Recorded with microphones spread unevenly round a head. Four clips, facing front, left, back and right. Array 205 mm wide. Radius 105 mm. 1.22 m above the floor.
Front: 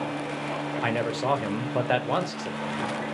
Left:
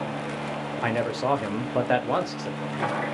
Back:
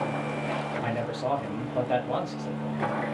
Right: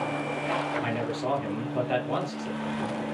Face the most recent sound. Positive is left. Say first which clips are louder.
# left 4 dB, front 6 dB
turn(degrees=40)